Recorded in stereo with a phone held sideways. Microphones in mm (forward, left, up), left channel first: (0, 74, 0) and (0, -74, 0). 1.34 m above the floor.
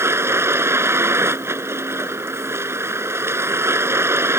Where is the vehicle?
15° right (ahead or behind).